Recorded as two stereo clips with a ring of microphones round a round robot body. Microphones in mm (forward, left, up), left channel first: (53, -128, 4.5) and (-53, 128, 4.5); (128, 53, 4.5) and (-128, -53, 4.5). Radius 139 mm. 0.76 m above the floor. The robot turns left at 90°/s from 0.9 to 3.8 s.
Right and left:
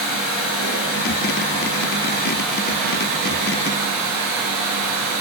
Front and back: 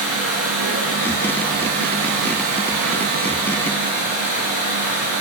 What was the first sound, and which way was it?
Running water, 10° right.